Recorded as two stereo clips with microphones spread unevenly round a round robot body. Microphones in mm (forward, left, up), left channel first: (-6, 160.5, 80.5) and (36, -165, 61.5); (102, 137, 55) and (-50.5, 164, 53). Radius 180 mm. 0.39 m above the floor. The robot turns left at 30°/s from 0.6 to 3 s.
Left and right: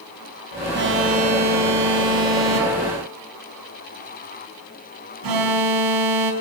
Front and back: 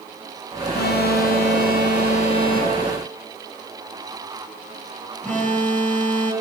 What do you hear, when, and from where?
0.7 s an alarm: 25° right, 4 m; by 6.3 s 95° right, 4 m